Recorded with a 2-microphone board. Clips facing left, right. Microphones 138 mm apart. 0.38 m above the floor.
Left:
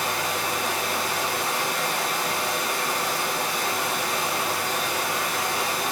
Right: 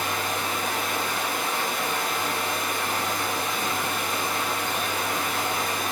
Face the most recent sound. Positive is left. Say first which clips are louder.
# left 1 dB
turn(degrees=85)